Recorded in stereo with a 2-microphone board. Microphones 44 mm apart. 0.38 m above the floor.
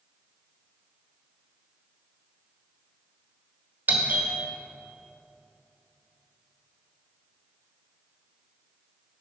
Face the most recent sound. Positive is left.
turn(degrees=-45)  # may be behind; listen again after turning